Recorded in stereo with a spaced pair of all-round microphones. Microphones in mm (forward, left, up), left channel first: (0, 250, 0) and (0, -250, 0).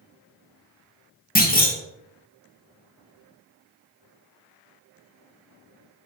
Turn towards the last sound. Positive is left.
turn(degrees=20)  # may be behind; listen again after turning